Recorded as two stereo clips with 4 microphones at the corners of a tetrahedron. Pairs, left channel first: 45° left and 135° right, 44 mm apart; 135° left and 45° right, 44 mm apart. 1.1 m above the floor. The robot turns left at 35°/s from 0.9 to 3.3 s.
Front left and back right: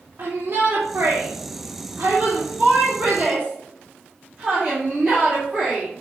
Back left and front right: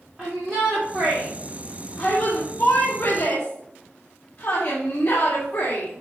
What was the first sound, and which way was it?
A shout, 125° right.